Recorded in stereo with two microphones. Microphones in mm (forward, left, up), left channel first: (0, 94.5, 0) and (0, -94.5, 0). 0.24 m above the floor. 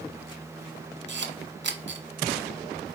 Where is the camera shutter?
70° right (ahead or behind), 0.7 m.